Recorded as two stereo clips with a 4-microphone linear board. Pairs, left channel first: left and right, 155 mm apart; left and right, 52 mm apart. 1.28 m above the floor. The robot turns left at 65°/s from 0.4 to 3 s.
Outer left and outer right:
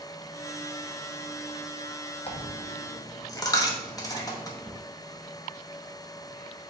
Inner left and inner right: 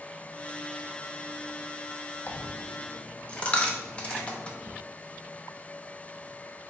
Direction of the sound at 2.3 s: 40° left (ahead or behind).